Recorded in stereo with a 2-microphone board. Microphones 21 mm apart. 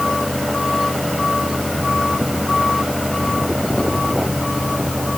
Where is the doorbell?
I don't hear a doorbell.